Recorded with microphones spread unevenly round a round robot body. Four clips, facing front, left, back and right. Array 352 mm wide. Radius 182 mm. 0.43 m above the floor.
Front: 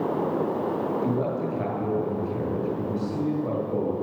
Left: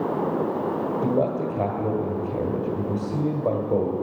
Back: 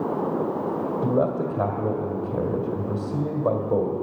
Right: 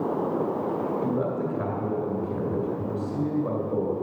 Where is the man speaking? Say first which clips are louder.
Left 3 dB, back 3 dB; 150° left, 2 m.